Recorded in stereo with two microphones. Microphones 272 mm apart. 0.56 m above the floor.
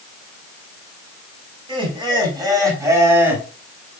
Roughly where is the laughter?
Centre.